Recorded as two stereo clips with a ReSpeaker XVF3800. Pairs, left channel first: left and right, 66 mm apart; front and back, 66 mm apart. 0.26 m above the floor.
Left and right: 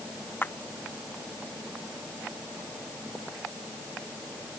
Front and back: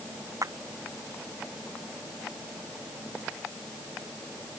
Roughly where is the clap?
Behind left.